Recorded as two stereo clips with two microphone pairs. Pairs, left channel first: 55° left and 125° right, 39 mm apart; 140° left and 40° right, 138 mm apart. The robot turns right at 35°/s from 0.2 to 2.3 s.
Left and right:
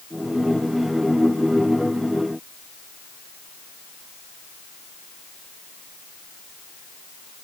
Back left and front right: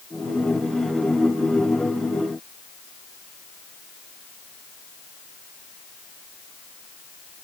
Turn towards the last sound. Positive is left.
No sound to turn to.